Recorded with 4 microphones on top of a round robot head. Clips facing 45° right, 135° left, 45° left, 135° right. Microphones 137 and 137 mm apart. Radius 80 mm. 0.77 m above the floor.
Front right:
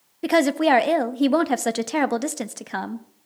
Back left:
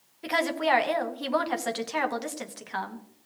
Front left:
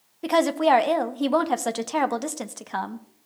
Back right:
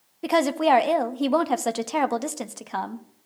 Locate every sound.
0.2 s a woman speaking: 50° right, 1.1 m